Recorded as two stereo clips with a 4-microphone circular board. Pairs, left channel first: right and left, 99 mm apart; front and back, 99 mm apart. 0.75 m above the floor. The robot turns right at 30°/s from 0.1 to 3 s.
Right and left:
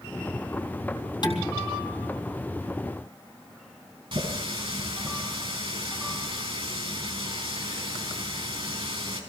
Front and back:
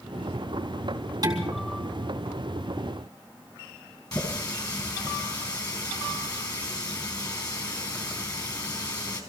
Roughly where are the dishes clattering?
Behind right.